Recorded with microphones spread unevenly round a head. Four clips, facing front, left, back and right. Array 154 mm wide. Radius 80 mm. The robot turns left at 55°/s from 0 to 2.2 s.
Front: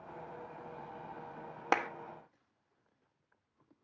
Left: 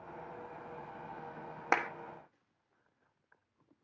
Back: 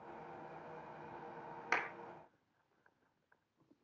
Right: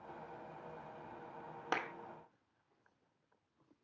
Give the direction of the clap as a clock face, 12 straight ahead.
11 o'clock.